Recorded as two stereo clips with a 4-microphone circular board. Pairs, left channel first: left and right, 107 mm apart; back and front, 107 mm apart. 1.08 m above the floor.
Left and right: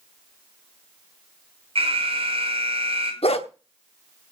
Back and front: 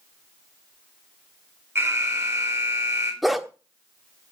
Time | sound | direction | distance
1.8 | an alarm | 70° right | 5 m
3.2 | a dog barking | 90° left | 1.2 m